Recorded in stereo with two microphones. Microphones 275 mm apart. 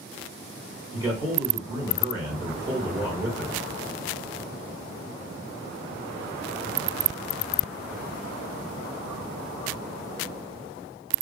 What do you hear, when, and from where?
0.9 s a man speaking: 10° right (ahead or behind), 1.1 m